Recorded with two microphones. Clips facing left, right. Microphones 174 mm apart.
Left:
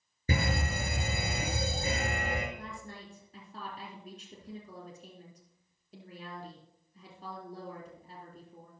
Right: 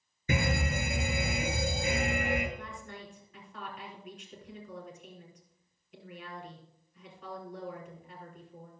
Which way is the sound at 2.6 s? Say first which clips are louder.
Even; 35° left (ahead or behind).